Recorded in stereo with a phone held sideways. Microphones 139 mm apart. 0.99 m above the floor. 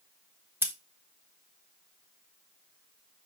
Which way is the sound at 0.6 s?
15° right (ahead or behind).